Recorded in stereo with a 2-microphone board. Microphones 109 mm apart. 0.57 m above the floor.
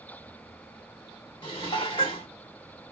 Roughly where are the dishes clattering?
Left.